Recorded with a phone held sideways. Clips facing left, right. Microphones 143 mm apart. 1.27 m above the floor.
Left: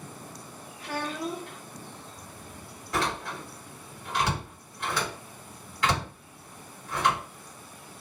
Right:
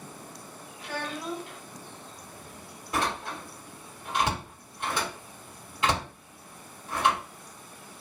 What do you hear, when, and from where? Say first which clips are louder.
0.8 s a child speaking: left 3 dB; 45° left (ahead or behind), 1.4 m
2.9 s a door slam: even; 20° right (ahead or behind), 2.5 m